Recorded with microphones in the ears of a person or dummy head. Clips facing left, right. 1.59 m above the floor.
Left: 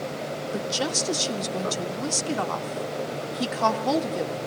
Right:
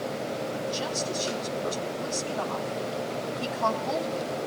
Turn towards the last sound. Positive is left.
turn(degrees=75)  # may be behind; listen again after turning